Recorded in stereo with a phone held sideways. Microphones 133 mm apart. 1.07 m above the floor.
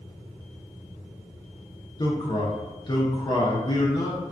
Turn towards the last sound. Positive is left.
turn(degrees=30)  # may be behind; listen again after turning